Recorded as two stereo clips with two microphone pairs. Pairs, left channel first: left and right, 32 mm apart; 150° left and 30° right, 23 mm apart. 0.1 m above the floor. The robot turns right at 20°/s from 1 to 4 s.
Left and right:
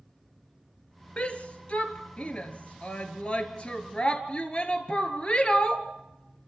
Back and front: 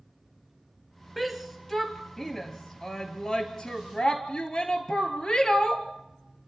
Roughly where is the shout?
Ahead left.